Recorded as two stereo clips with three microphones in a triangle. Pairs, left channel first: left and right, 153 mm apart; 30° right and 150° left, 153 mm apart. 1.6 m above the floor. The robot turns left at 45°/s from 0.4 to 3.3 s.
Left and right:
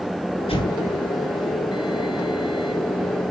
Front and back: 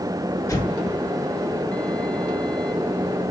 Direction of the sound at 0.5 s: 40° left.